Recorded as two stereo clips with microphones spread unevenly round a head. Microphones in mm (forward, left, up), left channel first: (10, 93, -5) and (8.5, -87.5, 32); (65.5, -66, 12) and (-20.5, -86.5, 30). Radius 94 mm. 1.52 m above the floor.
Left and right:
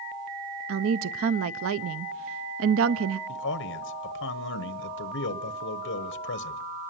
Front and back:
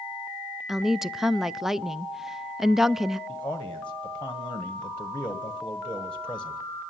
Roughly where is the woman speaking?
Right.